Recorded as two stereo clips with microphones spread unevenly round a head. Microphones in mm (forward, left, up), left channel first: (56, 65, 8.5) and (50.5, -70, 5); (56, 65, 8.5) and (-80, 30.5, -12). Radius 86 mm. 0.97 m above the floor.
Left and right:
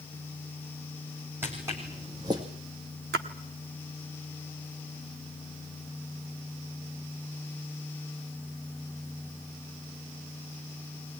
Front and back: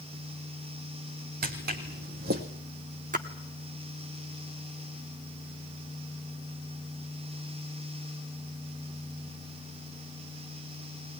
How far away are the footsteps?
About 2.5 m.